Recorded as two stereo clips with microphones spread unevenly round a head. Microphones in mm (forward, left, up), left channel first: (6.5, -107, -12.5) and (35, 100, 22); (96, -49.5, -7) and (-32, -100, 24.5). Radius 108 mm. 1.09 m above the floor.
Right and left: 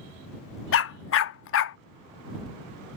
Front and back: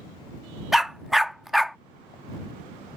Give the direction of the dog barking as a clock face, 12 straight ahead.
3 o'clock.